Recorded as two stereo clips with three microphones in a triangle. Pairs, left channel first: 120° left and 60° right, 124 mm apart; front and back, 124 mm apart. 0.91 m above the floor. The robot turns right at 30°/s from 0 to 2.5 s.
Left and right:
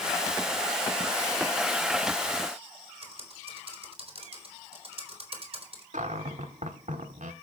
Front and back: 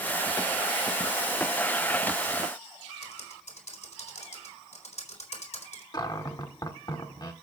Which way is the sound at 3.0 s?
20° right.